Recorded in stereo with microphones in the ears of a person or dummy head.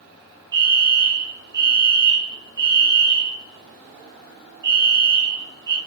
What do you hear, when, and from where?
0.5 s a fire alarm: 25° right (ahead or behind), 4 m